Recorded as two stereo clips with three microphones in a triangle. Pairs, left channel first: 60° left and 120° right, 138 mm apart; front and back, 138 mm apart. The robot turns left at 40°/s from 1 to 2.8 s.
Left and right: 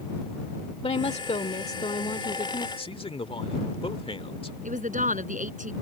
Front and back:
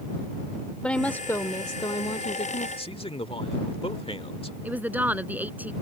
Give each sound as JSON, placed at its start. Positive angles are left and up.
{"t": 0.8, "sound": "a woman speaking", "azimuth_deg": 80}
{"t": 2.8, "sound": "a man speaking", "azimuth_deg": 30}
{"t": 4.6, "sound": "a woman speaking", "azimuth_deg": -105}